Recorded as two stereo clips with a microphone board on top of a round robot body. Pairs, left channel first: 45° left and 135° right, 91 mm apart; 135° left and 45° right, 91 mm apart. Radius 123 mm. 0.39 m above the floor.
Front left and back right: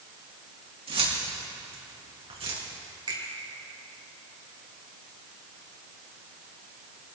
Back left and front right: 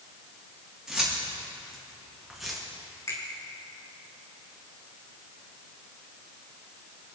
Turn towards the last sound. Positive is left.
turn(degrees=-170)